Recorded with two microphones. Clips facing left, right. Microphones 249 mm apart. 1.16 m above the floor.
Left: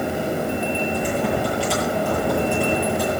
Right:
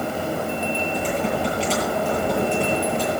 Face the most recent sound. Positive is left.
turn(degrees=10)  # may be behind; listen again after turning